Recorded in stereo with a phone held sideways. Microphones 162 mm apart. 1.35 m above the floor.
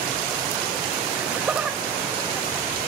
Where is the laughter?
5° right (ahead or behind), 1.9 m.